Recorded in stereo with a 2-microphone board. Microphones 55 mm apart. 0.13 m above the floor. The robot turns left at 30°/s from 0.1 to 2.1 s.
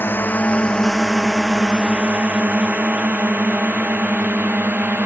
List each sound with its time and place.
0.0 s a drone: 40° left (ahead or behind); by 5.1 s 35° right (ahead or behind)